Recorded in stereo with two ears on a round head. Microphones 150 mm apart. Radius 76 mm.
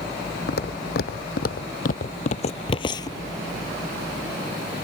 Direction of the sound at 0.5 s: 65° left (ahead or behind).